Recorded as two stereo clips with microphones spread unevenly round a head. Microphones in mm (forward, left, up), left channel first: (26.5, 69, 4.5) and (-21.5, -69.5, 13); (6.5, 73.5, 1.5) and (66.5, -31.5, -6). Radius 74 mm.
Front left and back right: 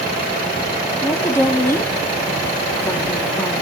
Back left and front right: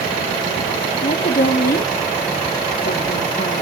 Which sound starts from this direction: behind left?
A woman speaking, at 1.0 s.